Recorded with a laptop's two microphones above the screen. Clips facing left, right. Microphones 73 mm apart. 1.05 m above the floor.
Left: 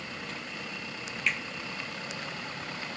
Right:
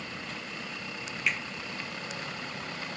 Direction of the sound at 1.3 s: 5° right (ahead or behind).